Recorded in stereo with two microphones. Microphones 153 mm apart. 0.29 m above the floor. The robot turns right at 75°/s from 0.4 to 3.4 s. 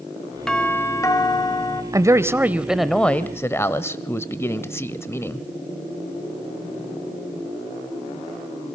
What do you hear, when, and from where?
0.5 s a doorbell: 5° left (ahead or behind), 1.4 m; by 1.8 s 25° left (ahead or behind), 1.4 m
1.9 s a man speaking: 25° right (ahead or behind), 0.9 m; by 5.4 s 15° left (ahead or behind), 0.9 m